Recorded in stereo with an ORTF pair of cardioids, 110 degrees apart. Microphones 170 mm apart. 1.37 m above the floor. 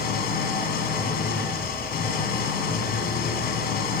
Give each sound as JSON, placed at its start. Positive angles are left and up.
{"t": 0.0, "sound": "an engine running", "azimuth_deg": 65, "distance_m": 4.0}